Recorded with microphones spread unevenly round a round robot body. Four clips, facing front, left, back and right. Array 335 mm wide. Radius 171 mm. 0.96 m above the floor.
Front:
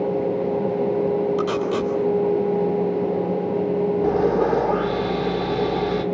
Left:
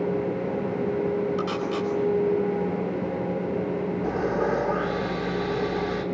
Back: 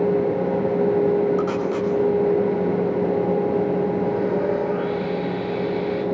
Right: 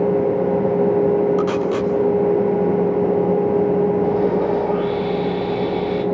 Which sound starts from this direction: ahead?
Sawing, at 4.0 s.